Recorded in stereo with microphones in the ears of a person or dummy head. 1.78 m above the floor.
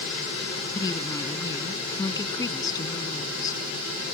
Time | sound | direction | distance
0.8 | a woman speaking | 20° left (ahead or behind) | ?